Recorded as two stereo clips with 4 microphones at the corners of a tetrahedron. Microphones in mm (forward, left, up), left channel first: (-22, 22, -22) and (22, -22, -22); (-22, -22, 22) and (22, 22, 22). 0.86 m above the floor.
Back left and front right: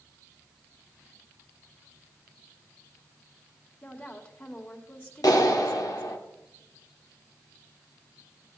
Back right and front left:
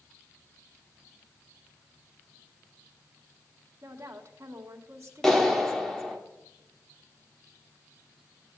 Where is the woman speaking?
80° left, 2.5 m.